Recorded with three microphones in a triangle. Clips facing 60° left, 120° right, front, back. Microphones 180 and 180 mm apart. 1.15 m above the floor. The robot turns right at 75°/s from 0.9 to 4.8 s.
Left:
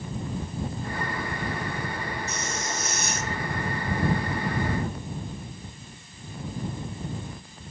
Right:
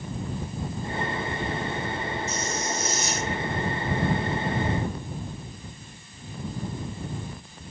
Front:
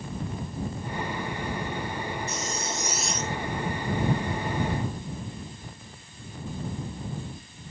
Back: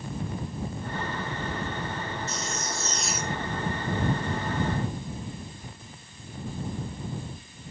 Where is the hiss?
30° left; by 3.4 s 115° left.